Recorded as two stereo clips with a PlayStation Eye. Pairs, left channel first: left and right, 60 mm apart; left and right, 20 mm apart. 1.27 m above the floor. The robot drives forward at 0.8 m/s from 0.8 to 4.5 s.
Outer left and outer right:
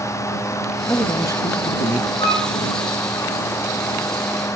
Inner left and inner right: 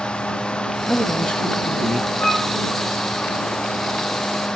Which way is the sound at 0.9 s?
65° left (ahead or behind).